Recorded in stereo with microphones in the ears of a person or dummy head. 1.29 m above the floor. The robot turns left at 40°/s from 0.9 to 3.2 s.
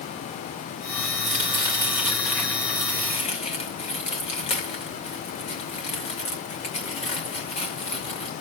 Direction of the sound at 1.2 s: 40° right (ahead or behind).